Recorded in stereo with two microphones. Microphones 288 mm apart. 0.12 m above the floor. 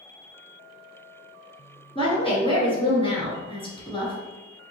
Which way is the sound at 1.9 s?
20° left (ahead or behind).